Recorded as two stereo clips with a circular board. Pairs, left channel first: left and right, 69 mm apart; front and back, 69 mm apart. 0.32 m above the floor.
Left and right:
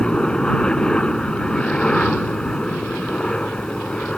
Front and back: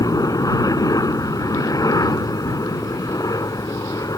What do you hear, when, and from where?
0.0 s a helicopter: 15° left